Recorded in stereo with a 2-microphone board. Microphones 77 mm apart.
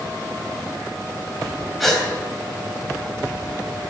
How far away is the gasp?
About 3.5 m.